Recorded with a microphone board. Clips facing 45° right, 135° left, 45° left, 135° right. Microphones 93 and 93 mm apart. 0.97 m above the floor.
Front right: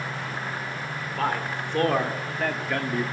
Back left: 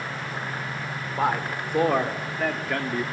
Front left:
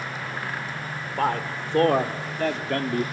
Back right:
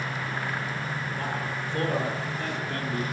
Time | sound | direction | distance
1.2 | a man speaking | 60° left | 3 m